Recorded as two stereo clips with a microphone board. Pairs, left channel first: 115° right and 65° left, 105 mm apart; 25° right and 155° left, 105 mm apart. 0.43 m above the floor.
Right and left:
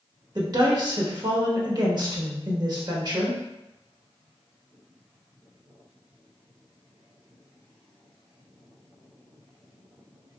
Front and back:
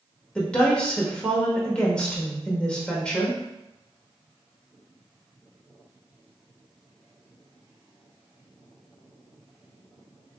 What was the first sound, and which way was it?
A woman speaking, 50° left.